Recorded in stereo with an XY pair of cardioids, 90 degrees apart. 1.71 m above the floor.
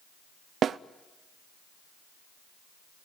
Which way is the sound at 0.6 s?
60° right.